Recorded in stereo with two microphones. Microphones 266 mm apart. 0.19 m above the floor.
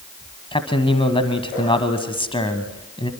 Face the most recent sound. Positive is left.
turn(degrees=20)  # may be behind; listen again after turning